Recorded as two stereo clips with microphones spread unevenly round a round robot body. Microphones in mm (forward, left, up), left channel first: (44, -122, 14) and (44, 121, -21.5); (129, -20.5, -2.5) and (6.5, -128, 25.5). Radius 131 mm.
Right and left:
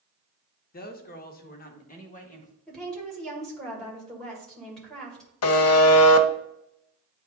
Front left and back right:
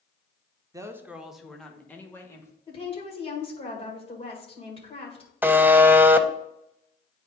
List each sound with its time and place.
0.7 s a woman speaking: 70° right, 0.8 m; by 2.5 s 25° right, 1.7 m
2.7 s a woman speaking: 5° left, 2 m
5.4 s a buzzer: 60° right, 0.7 m